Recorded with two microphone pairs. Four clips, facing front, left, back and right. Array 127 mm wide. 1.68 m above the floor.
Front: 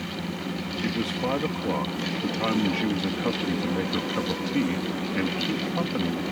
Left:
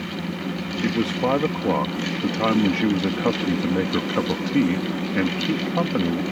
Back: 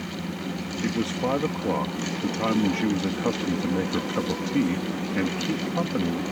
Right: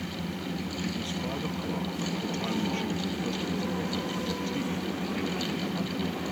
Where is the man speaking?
95° left.